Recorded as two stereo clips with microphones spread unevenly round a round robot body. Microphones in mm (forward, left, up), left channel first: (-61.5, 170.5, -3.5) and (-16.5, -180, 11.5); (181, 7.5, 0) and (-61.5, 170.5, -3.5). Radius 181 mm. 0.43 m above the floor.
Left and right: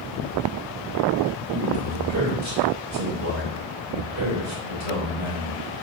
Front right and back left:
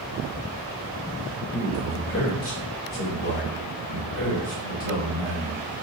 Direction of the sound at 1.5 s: 70° right.